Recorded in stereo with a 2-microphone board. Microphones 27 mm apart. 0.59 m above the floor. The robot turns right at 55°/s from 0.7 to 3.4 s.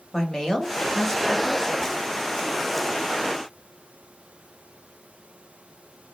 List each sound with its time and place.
0.1 s a woman speaking: 20° left (ahead or behind), 1.0 m; by 1.8 s 10° left (ahead or behind), 1.0 m